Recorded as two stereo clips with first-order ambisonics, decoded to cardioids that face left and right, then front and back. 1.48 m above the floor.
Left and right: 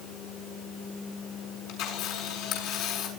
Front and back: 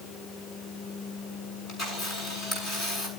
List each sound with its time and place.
1.7 s a camera shutter: 60° left, 7 m